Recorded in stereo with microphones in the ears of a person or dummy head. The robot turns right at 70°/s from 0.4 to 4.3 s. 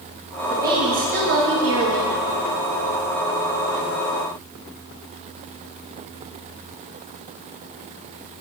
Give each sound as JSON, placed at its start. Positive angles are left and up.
{"t": 0.5, "sound": "a woman speaking", "azimuth_deg": -170, "distance_m": 1.8}